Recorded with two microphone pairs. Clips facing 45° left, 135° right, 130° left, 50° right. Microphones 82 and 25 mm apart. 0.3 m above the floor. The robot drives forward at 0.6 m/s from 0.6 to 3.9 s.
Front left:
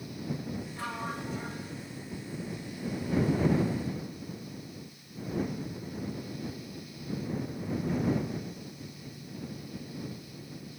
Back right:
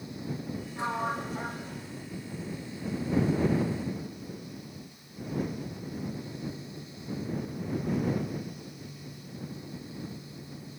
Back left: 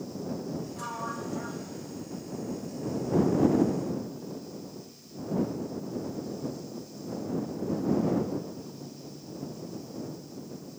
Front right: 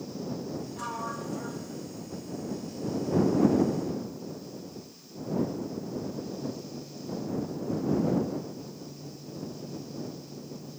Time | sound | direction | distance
0.8 | a sliding door | 105° right | 0.6 m